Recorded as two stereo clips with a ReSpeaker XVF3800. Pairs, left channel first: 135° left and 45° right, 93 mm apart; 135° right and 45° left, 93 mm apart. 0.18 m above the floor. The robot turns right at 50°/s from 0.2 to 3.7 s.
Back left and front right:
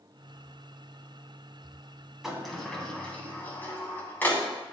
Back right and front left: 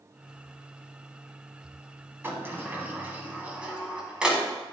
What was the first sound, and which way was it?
A sliding door, 35° left.